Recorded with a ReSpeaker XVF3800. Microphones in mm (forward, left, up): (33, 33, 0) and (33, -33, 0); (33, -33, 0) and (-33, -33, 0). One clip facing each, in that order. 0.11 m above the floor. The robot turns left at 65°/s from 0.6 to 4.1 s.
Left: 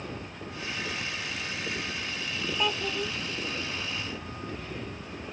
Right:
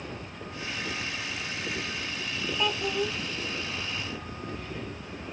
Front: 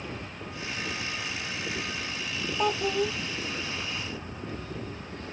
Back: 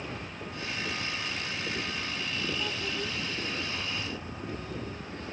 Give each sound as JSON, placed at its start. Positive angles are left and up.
{"t": 2.6, "sound": "a child speaking", "azimuth_deg": 5}